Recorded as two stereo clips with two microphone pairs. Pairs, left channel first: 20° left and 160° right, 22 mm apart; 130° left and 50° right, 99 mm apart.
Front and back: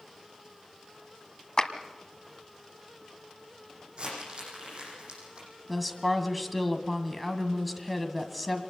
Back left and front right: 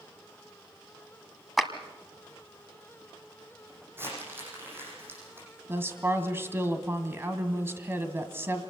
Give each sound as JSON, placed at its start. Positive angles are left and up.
{"t": 1.6, "sound": "a clap", "azimuth_deg": 40, "distance_m": 1.5}
{"t": 4.0, "sound": "crumpling", "azimuth_deg": -115, "distance_m": 9.5}
{"t": 5.7, "sound": "a woman speaking", "azimuth_deg": -75, "distance_m": 1.7}